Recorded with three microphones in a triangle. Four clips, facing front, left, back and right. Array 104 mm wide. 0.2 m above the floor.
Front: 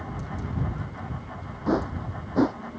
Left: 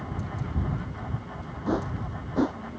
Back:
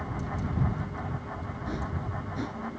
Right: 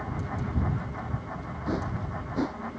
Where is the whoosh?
20° left.